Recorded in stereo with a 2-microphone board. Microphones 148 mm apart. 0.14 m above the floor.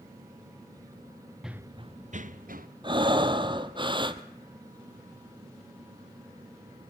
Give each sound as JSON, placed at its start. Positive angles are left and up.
{"t": 1.4, "sound": "running footsteps", "side_deg": -5, "distance_m": 0.8}
{"t": 2.8, "sound": "breathing", "side_deg": -35, "distance_m": 1.0}